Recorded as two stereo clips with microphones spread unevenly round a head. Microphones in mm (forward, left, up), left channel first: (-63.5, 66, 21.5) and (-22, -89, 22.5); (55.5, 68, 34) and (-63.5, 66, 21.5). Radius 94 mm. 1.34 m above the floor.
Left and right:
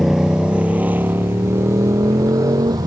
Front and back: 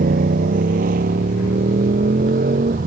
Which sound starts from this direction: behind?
A motorcycle, at 0.0 s.